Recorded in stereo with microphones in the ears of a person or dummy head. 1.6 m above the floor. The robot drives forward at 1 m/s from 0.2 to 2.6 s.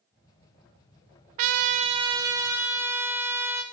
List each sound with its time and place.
1.4 s a trumpet: 40° right (ahead or behind), 0.5 m; by 3.6 s 15° right (ahead or behind), 1.3 m